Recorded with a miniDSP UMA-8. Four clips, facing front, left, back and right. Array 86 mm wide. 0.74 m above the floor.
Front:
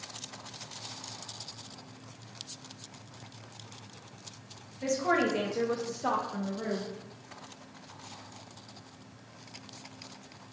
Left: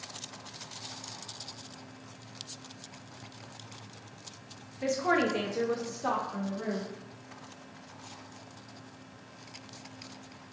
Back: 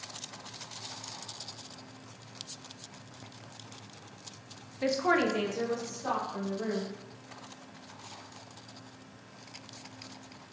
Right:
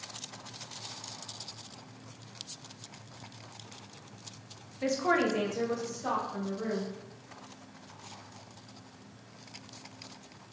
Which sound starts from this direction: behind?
A woman speaking, at 4.8 s.